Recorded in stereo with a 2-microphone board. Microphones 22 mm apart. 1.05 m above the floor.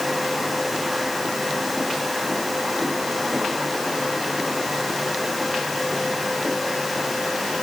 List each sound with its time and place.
Only background noise.